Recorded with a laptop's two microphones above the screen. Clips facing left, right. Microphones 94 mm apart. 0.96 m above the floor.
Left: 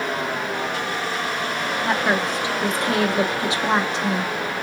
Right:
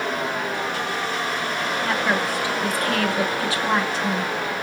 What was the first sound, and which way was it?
A woman speaking, 20° left (ahead or behind).